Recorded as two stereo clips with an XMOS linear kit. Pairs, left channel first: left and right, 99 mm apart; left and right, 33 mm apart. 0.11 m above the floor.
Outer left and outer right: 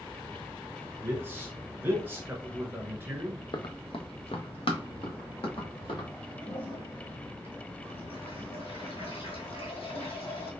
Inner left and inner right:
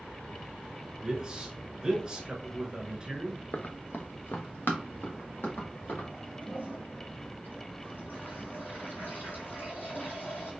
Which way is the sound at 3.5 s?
50° left (ahead or behind).